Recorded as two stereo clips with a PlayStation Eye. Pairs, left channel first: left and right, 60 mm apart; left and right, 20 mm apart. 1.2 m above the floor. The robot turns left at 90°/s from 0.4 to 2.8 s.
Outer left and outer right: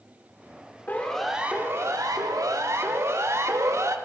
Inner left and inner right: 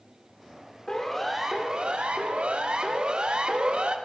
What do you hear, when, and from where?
0.9 s a siren: 30° left (ahead or behind), 4 m; by 4.0 s 60° right (ahead or behind), 2 m